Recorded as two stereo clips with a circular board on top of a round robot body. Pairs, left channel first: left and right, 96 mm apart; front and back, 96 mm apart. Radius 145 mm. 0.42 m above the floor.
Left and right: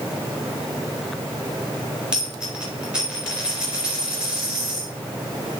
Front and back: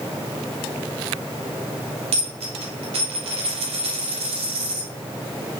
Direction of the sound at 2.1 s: 170° right.